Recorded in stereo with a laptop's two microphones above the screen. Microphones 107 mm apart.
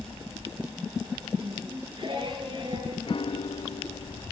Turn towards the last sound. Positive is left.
turn(degrees=55)  # may be behind; listen again after turning